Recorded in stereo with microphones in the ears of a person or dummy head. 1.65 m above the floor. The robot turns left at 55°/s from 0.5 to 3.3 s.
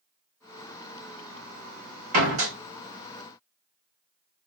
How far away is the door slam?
About 1.6 m.